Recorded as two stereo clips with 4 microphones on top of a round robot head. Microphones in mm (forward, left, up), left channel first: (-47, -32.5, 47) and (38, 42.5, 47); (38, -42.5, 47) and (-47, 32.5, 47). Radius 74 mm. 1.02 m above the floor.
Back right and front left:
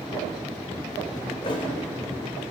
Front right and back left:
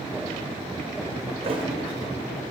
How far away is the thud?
About 1.6 m.